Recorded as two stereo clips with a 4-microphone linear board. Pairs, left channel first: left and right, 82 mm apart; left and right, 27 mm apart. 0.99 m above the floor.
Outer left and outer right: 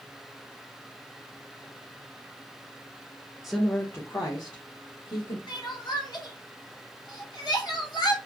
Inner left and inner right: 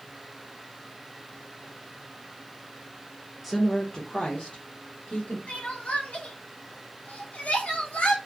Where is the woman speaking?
5° right (ahead or behind), 0.5 m; by 5.4 s 70° left (ahead or behind), 1.2 m.